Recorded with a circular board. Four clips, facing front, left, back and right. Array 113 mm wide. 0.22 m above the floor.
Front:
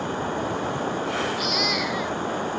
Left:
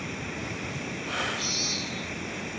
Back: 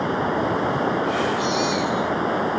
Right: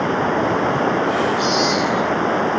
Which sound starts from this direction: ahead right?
A baby crying, at 1.4 s.